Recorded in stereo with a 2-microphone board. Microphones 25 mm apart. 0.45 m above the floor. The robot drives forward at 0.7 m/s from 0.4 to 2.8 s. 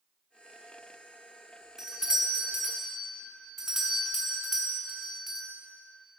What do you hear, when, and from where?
1.8 s a doorbell: 20° right (ahead or behind), 1.3 m; by 5.5 s 15° right (ahead or behind), 1.6 m